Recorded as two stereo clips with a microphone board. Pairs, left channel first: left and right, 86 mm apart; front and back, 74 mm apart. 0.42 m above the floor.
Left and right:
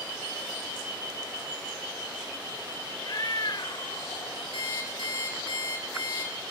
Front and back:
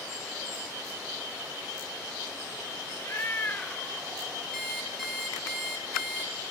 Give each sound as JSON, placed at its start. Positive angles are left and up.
{"t": 3.0, "sound": "a cat meowing", "azimuth_deg": 50, "distance_m": 1.1}
{"t": 4.5, "sound": "an alarm clock", "azimuth_deg": 90, "distance_m": 4.0}